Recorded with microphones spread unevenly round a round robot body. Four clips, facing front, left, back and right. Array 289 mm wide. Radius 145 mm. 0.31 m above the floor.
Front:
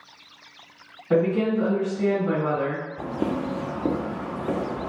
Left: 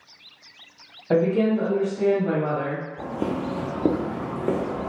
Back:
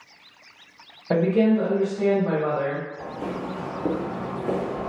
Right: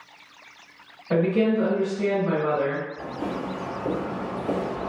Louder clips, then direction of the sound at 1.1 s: Left 1 dB, back 2 dB; 155° left.